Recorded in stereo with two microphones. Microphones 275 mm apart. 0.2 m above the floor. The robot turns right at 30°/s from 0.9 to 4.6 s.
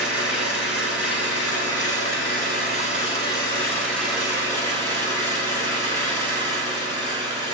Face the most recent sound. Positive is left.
turn(degrees=-165)